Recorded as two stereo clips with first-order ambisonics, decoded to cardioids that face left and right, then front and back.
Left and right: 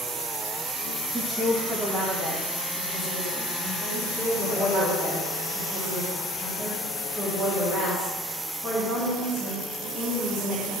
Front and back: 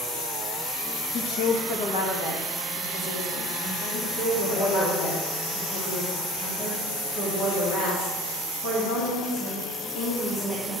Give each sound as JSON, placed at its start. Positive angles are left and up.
{"t": 1.1, "sound": "a woman speaking", "azimuth_deg": -20, "distance_m": 1.1}
{"t": 3.9, "sound": "a woman speaking", "azimuth_deg": -20, "distance_m": 2.5}